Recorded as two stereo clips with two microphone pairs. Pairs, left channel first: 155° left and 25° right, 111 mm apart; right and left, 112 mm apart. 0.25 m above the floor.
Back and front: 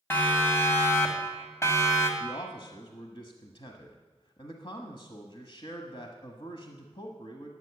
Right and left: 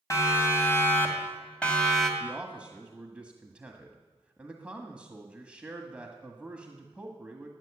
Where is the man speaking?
165° left, 1.4 m.